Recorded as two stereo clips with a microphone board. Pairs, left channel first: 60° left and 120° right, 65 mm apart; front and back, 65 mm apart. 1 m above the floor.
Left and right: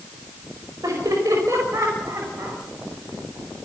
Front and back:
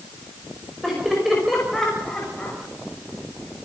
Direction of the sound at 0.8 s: 95° right.